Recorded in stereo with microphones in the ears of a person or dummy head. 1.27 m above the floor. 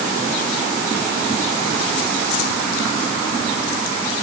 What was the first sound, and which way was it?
Only background noise.